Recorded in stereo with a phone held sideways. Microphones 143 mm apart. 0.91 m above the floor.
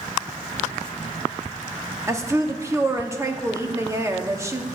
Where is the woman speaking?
20° right (ahead or behind), 1.4 m.